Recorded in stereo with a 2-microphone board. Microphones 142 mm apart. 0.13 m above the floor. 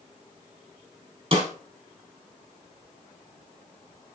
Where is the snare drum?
40° right (ahead or behind), 4 m.